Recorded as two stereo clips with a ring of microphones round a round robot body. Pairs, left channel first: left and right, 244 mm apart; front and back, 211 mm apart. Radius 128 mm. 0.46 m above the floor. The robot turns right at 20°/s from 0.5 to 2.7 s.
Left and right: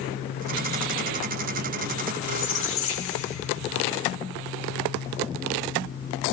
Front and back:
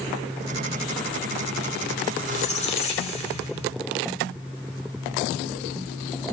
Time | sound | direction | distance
2.2 | a squeak | 50° left | 1.5 m